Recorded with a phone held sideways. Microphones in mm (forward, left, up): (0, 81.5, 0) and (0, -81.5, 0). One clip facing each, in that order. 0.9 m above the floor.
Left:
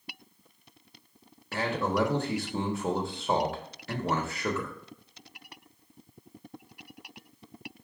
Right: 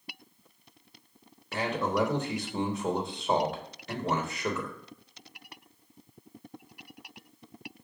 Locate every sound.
1.5 s a man speaking: 5° left (ahead or behind), 1.0 m